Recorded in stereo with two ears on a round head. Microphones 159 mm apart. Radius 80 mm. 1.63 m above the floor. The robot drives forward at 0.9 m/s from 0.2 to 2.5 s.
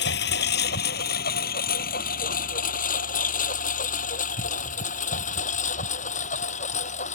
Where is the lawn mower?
65° left (ahead or behind); by 7.2 s 40° left (ahead or behind).